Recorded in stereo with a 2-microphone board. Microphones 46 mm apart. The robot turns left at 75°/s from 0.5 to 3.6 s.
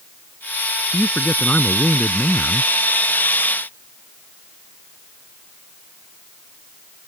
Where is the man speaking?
95° left; by 2.7 s 35° right.